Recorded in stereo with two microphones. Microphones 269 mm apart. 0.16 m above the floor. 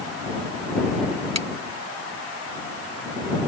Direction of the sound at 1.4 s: 70° right (ahead or behind).